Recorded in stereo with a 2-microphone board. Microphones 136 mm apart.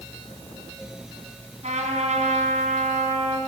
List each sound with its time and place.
1.6 s a trumpet: 65° right (ahead or behind), 3.5 m